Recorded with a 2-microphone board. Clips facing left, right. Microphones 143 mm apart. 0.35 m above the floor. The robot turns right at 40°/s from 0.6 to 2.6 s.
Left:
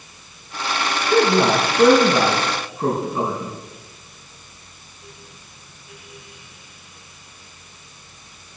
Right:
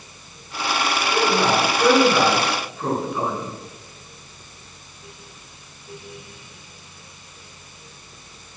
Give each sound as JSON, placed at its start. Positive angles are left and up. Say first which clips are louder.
{"t": 1.1, "sound": "a man speaking", "louder": "left 5 dB", "side_deg": 75, "distance_m": 4.5}